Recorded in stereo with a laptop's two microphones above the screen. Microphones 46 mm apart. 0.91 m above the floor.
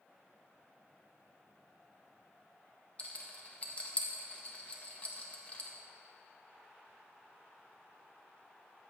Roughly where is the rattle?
Left.